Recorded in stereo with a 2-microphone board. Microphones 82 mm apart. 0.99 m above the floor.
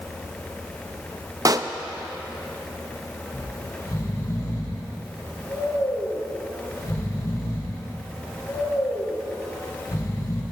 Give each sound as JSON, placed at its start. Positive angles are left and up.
{"t": 1.4, "sound": "a pop", "side_deg": -45, "distance_m": 0.5}
{"t": 3.3, "sound": "snoring", "side_deg": 40, "distance_m": 3.5}